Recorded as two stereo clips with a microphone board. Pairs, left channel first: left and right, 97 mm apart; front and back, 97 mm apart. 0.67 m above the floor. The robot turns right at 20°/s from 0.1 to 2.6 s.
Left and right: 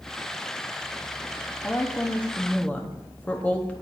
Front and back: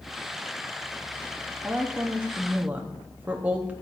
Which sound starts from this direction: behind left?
A woman speaking, at 1.6 s.